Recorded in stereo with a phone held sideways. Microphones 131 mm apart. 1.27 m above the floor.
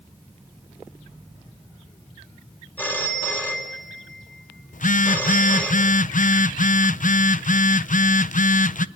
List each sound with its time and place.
2.8 s a phone ringing: 15° left (ahead or behind), 3 m
4.7 s a phone buzzing: 80° left, 0.5 m